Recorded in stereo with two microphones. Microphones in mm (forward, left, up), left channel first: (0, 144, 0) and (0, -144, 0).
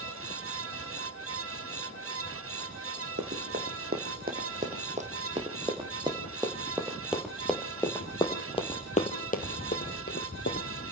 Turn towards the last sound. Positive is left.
turn(degrees=45)  # may be behind; listen again after turning